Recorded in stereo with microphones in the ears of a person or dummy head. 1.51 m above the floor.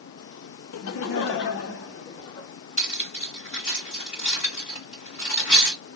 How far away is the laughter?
About 0.5 m.